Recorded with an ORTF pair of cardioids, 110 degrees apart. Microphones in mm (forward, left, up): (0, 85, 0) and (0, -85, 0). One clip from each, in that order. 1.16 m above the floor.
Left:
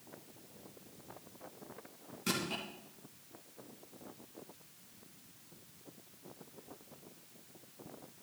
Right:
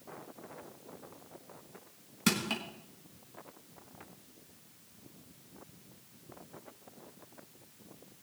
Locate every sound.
2.3 s crushing: 65° right, 4 m